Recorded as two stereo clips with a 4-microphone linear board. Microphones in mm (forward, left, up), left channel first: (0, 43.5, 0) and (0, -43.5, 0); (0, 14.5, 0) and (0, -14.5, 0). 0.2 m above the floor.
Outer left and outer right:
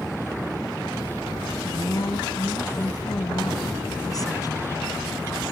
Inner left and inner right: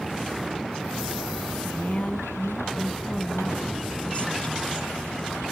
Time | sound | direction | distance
1.6 | a woman speaking | 45° left (ahead or behind) | 1.6 m